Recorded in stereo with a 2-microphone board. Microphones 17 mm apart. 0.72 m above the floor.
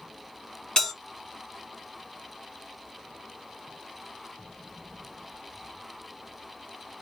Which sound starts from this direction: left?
A bell, at 0.8 s.